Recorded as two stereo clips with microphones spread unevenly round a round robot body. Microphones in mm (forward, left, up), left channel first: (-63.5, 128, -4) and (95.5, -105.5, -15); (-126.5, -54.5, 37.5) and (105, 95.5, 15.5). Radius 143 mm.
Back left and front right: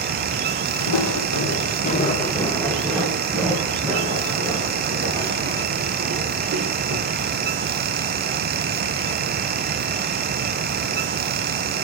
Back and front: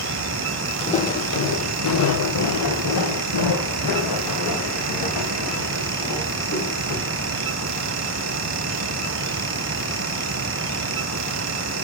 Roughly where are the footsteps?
Behind left.